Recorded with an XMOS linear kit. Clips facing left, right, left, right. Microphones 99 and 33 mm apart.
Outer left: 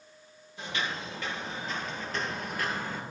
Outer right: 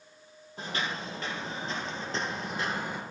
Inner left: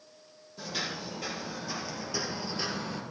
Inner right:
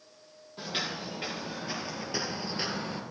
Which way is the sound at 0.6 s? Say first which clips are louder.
Even, inner right 1 dB; 40° right (ahead or behind).